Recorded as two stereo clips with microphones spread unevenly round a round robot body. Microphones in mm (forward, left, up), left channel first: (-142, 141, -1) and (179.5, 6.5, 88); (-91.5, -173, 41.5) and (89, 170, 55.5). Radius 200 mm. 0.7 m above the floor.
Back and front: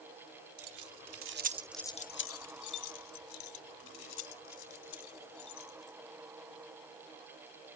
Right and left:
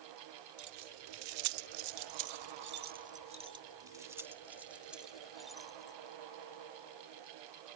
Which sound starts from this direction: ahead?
Keys jangling, at 0.6 s.